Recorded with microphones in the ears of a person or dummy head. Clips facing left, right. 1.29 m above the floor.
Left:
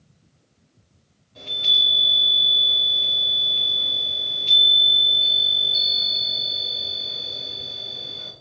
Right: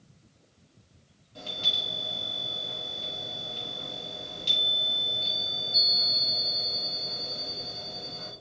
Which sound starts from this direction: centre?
A chime, at 1.4 s.